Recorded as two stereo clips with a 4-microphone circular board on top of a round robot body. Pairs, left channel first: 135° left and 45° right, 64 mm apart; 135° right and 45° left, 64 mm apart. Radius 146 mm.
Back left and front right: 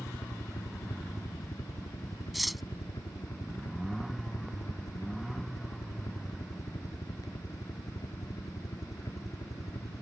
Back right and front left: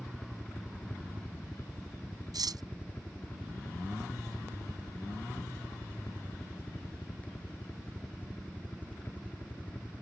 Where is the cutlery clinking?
45° left.